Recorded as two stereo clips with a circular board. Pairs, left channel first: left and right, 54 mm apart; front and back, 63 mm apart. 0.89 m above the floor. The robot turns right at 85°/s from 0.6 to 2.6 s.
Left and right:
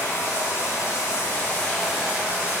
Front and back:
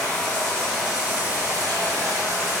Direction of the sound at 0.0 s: 70° left.